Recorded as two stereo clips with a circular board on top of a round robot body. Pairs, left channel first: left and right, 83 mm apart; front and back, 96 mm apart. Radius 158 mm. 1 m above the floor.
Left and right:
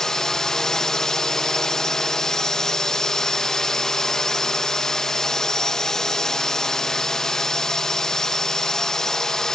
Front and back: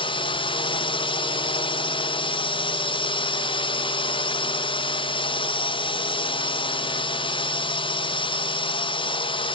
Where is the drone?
5° left.